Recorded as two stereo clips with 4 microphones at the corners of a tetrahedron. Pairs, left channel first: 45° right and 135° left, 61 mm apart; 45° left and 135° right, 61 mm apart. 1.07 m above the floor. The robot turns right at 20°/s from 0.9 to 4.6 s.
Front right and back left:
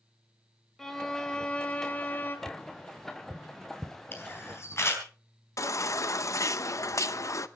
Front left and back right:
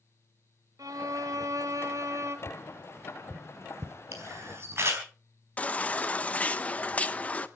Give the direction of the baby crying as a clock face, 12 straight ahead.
1 o'clock.